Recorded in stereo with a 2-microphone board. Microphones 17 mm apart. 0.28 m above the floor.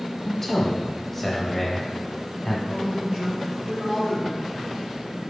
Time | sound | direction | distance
0.2 | a man speaking | 15° left (ahead or behind) | 1.2 m
2.7 | a man speaking | 45° right (ahead or behind) | 2.0 m